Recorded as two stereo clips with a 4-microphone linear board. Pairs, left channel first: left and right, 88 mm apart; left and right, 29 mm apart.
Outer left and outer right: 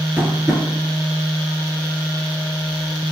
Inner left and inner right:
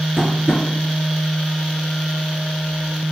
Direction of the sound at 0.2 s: 15° right (ahead or behind).